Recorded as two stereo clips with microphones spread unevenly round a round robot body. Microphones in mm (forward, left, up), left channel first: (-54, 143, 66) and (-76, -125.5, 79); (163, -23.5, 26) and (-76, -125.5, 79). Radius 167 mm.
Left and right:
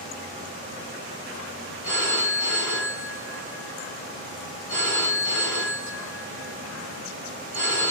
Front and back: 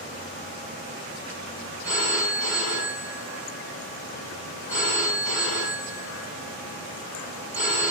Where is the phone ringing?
75° left, 3.5 m.